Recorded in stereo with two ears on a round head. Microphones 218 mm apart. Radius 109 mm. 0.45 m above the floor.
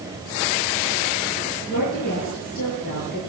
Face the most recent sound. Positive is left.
turn(degrees=40)  # may be behind; listen again after turning